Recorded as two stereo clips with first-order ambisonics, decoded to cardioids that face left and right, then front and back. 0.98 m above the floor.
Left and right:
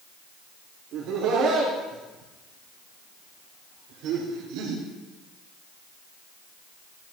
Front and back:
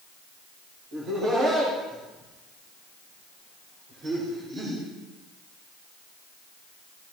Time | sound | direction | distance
0.9 | laughter | 130° right | 4.5 m